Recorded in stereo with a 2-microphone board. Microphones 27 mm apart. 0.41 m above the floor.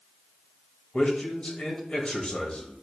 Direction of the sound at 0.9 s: 45° left (ahead or behind).